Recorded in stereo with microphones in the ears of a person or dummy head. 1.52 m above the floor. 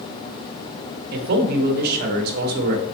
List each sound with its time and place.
1.1 s a man speaking: 55° right (ahead or behind), 1.6 m